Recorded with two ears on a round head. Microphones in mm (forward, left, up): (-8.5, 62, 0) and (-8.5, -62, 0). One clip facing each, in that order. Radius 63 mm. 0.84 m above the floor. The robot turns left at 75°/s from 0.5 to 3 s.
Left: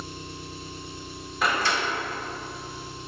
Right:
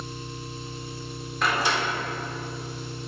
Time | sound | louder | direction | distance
0.0 | an engine running | right 1 dB | 55° left | 3 m
1.4 | a door slam | even | centre (ahead or behind) | 1.7 m